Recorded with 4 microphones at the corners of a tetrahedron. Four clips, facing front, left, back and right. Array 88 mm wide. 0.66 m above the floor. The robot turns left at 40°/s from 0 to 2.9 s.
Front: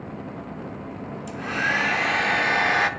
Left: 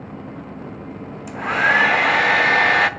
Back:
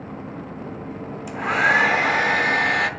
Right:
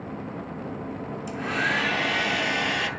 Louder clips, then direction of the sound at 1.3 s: Left 9 dB, back 6 dB; 140° left.